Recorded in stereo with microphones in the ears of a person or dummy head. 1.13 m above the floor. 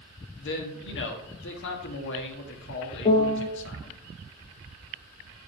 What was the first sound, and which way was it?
A man speaking, 60° left (ahead or behind).